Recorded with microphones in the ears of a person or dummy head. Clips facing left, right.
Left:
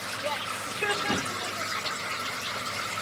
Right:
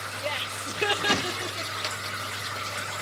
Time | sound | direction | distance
0.2 | laughter | 30° right (ahead or behind) | 1.2 m